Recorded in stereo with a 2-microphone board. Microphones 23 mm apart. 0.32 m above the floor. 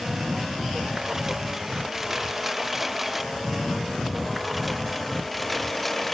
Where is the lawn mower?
20° right (ahead or behind); by 6.1 s 10° left (ahead or behind).